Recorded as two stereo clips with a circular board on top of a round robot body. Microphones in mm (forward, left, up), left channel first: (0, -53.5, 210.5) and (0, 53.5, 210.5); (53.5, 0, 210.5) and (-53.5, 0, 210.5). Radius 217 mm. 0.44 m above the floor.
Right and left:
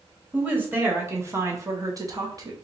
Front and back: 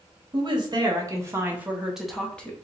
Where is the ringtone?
No ringtone in this recording.